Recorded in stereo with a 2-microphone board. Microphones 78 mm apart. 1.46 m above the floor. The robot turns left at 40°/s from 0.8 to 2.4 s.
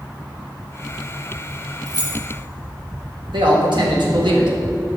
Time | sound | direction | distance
1.9 | keys jangling | 50° right (ahead or behind) | 1.6 m
3.3 | a man speaking | 75° right (ahead or behind) | 1.6 m